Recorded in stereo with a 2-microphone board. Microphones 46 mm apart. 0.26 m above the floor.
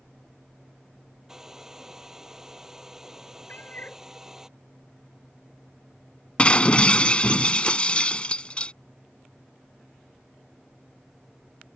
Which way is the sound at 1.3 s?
15° right (ahead or behind).